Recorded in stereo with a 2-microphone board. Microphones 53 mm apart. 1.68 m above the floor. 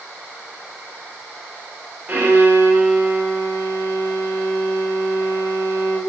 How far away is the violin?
About 9.5 m.